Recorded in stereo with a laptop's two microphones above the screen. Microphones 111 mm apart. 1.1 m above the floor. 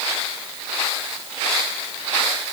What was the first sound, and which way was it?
Only background noise.